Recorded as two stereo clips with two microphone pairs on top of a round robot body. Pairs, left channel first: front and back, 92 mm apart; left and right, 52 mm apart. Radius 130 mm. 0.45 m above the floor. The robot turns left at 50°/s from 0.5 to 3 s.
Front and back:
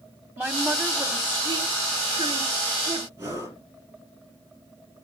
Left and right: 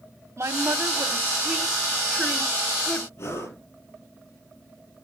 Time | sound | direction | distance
0.4 | a woman speaking | 100° right | 1.7 m
3.2 | breathing | 120° left | 7 m